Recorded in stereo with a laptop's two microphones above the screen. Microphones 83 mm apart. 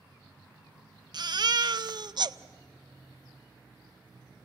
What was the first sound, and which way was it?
A baby crying, 55° right (ahead or behind).